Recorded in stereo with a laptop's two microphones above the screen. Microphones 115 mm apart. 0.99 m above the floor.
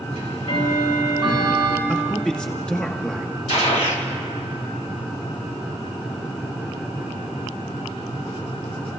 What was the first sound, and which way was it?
Ticking, 85° left.